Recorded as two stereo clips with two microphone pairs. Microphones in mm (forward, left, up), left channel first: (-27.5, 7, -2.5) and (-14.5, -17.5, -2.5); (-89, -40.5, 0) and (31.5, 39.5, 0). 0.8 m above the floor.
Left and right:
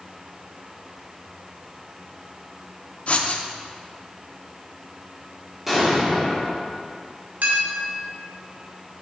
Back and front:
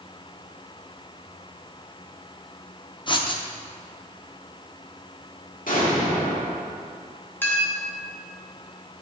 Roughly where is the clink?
Right.